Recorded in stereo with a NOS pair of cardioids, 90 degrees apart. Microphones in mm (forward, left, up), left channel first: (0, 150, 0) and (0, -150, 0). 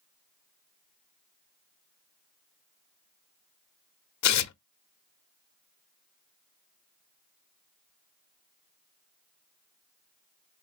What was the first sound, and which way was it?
Tearing paper, 65° left.